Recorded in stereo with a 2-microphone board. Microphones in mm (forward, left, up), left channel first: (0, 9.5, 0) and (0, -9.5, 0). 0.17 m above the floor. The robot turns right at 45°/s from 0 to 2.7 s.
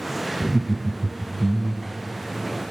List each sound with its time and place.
0.4 s laughter: 25° left (ahead or behind), 1.1 m; by 2.0 s centre (ahead or behind), 1.1 m